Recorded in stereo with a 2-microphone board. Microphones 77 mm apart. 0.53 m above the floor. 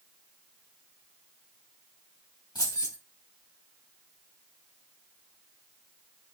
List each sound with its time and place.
2.5 s keys jangling: 65° left (ahead or behind), 2.5 m